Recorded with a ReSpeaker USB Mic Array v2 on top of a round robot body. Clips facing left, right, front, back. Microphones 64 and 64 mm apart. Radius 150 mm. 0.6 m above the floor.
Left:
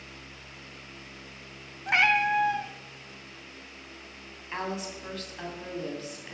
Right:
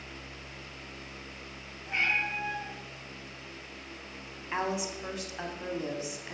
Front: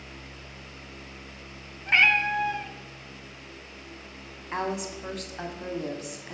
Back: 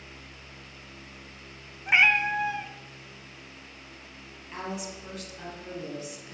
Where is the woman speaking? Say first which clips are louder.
Right 2 dB, front 6 dB; 15° right, 2 m.